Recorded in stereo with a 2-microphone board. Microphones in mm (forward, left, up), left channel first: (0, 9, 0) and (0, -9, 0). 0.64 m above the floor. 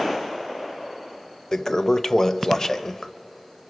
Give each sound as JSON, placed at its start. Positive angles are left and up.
{"t": 1.5, "sound": "a toilet flushing", "side_deg": 30, "distance_m": 0.6}